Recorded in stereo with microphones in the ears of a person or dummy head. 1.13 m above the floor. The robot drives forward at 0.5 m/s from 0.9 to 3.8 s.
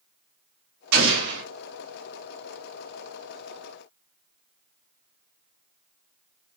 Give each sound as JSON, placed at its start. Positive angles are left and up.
{"t": 0.9, "sound": "an explosion", "side_deg": -65, "distance_m": 1.7}